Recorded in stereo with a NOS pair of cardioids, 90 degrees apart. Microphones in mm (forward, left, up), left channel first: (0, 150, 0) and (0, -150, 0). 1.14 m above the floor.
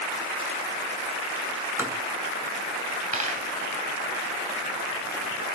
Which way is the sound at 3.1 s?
25° right.